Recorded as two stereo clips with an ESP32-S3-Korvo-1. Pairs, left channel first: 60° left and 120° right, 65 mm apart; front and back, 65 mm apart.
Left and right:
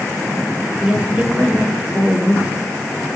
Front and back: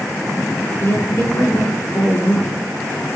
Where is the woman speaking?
45° right, 2 m.